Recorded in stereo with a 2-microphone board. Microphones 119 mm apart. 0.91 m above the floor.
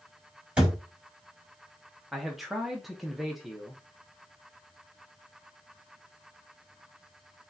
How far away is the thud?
About 2.5 m.